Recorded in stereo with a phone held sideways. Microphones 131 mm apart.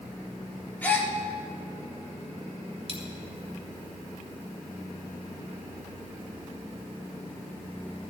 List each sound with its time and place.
0.8 s a gasp: 15° left (ahead or behind), 1.4 m
2.9 s a dropped coin: 50° right (ahead or behind), 2 m